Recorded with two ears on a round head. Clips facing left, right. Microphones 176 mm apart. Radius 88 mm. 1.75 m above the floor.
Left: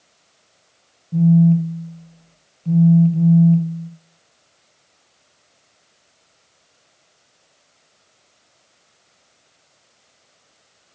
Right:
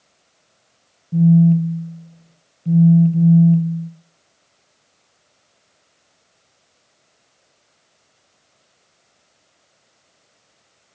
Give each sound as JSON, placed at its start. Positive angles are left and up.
{"t": 1.1, "sound": "a phone buzzing", "side_deg": -15, "distance_m": 1.1}